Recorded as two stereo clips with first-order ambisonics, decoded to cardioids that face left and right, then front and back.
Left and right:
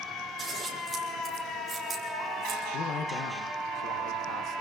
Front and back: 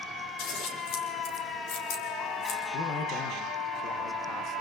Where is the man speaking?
50° left, 1.3 m.